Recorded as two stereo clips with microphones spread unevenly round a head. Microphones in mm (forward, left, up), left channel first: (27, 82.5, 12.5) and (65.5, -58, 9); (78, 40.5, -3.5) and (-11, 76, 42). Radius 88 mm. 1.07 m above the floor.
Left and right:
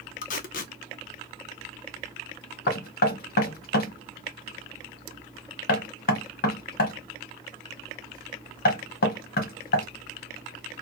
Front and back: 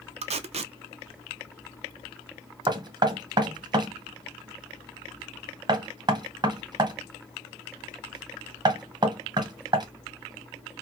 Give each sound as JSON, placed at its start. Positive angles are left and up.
{"t": 0.2, "sound": "tape being pulled", "azimuth_deg": 135, "distance_m": 0.5}
{"t": 2.7, "sound": "knocking", "azimuth_deg": 100, "distance_m": 1.0}